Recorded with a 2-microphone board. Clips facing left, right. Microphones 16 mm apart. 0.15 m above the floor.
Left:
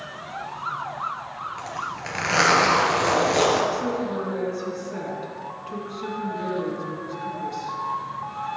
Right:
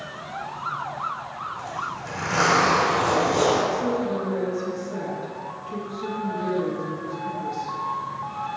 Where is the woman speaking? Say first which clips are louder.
Right 1 dB; 20° left (ahead or behind), 1.5 m.